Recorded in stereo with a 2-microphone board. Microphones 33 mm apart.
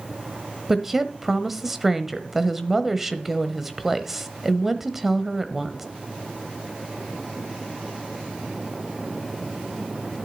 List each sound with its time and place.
0.7 s a woman speaking: 10° right (ahead or behind), 1.0 m